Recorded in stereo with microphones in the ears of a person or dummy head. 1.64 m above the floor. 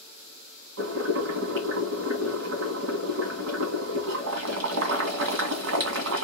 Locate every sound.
0.8 s boiling: 70° right (ahead or behind), 1.6 m